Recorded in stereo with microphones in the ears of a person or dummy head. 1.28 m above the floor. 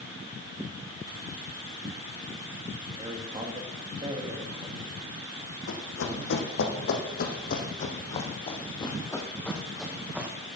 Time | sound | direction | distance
2.9 | a man speaking | 25° right (ahead or behind) | 2.5 m
5.7 | running footsteps | 70° left (ahead or behind) | 4 m